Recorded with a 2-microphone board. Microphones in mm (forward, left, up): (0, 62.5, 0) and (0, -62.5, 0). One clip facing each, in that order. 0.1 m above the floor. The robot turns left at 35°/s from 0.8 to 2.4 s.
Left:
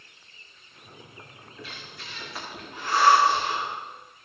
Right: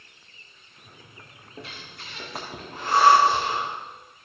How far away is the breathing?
About 4 m.